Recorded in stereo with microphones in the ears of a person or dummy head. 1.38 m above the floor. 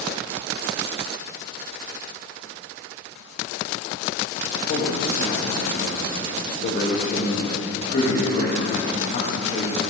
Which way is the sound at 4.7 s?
45° left (ahead or behind).